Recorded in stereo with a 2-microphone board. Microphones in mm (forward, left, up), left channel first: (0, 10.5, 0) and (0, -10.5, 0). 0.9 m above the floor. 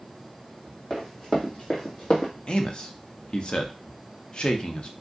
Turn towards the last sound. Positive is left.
turn(degrees=40)  # may be behind; listen again after turning